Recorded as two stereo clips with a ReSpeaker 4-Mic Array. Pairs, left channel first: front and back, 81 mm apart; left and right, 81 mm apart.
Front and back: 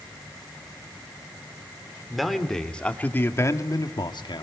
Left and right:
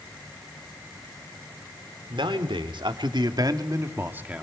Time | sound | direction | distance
2.1 | a man speaking | 90° right | 3 m